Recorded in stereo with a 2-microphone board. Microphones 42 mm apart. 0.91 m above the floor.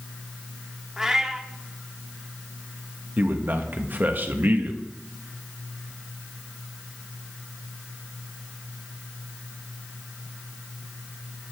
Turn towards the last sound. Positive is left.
turn(degrees=-50)  # may be behind; listen again after turning